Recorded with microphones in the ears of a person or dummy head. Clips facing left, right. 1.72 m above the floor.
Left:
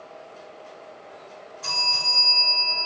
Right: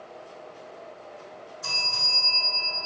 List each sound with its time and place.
1.6 s a bell: centre (ahead or behind), 1.8 m